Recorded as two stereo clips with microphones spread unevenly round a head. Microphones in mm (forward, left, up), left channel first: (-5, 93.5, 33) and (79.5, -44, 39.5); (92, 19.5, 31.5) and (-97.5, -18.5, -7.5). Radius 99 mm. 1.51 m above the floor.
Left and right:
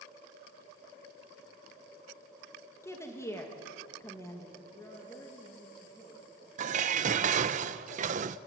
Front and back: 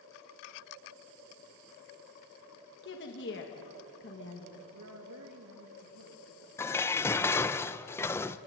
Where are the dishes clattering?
50° right, 0.6 m.